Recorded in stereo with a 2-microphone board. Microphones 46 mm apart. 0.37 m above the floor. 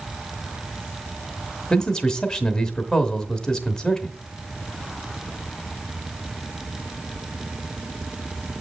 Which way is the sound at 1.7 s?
15° left (ahead or behind).